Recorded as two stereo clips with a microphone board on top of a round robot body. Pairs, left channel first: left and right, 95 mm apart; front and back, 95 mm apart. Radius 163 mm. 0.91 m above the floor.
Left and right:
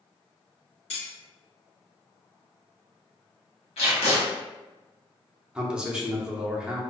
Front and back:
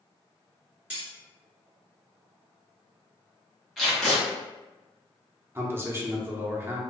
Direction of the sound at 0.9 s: 110° left.